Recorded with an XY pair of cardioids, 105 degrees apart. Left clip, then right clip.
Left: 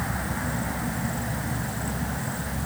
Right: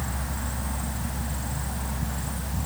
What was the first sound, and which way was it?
Only background noise.